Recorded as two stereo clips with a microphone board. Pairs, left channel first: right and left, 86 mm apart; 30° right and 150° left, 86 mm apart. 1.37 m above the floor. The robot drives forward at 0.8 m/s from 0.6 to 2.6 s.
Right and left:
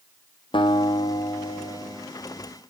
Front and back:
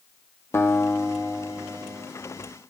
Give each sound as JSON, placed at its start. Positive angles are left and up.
{"t": 0.5, "sound": "a guitar", "azimuth_deg": -90, "distance_m": 1.2}